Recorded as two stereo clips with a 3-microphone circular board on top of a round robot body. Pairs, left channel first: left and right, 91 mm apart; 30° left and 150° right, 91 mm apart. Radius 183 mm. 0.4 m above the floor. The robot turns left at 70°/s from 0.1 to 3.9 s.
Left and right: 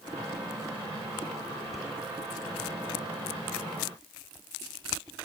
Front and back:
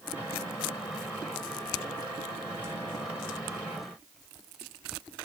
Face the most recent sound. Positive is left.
No sound to turn to.